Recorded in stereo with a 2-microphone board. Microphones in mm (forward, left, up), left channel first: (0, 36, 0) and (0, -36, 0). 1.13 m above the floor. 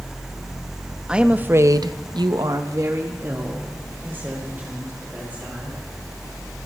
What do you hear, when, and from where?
1.1 s a woman speaking: 10° right (ahead or behind), 1.3 m; by 5.8 s 25° right (ahead or behind), 5.5 m